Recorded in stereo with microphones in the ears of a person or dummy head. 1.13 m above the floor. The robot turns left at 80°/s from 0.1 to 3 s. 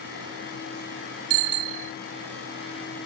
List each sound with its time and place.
1.3 s a bicycle bell: 90° right; by 1.9 s 140° right